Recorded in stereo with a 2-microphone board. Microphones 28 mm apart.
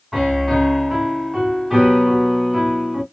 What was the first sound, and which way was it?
A piano, centre (ahead or behind).